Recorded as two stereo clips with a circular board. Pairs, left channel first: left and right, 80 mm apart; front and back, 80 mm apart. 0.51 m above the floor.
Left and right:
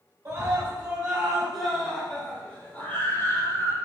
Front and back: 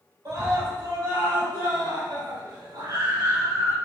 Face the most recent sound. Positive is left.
turn(degrees=135)